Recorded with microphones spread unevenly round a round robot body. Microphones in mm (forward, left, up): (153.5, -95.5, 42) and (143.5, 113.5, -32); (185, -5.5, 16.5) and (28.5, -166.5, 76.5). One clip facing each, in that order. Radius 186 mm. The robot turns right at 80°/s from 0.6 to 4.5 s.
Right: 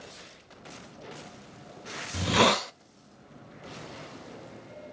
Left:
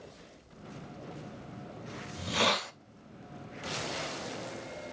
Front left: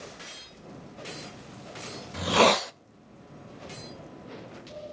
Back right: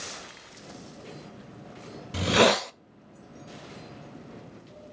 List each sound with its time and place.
2.1 s a hiss: 80° right, 0.7 m; by 2.7 s 30° right, 0.7 m